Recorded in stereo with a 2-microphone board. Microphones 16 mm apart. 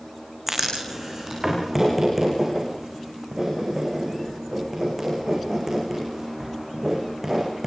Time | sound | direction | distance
0.5 | writing | 25° right (ahead or behind) | 8.5 m